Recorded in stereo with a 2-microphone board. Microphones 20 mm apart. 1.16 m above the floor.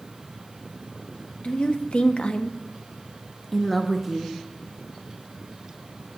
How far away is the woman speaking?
About 1.0 m.